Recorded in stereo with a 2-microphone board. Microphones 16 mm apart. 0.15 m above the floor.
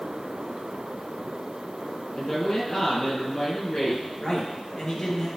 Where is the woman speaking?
45° left (ahead or behind), 3 m.